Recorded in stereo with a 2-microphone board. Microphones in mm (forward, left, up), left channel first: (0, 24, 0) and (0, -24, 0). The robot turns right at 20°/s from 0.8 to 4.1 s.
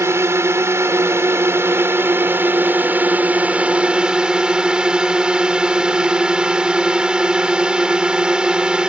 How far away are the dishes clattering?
I don't hear dishes clattering.